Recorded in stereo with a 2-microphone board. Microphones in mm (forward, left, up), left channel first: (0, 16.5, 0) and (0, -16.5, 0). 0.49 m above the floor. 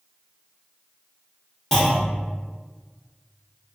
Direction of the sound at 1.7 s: 15° left (ahead or behind).